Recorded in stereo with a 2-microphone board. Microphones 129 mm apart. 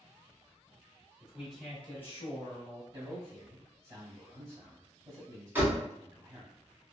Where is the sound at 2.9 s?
20° right (ahead or behind), 1.6 m.